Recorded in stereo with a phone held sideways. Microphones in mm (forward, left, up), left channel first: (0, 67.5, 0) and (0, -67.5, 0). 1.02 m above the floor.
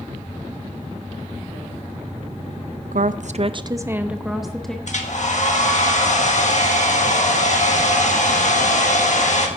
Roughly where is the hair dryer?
Left.